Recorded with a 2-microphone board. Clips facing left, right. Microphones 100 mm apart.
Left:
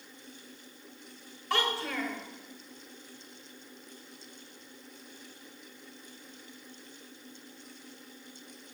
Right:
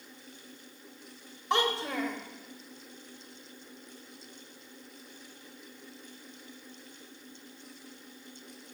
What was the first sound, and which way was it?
A child speaking, 20° right (ahead or behind).